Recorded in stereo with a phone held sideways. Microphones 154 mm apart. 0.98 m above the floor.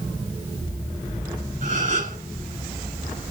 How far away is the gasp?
About 6 m.